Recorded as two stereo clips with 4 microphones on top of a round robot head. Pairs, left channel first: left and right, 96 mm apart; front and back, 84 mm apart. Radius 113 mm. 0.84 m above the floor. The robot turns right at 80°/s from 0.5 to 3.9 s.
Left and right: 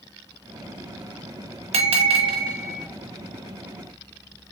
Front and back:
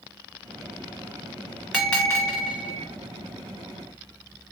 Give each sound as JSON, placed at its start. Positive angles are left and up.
{"t": 1.7, "sound": "a bell", "azimuth_deg": -95, "distance_m": 1.1}